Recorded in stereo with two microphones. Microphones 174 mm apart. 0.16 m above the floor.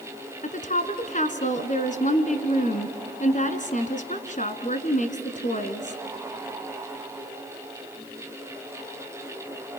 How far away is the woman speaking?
About 1.5 m.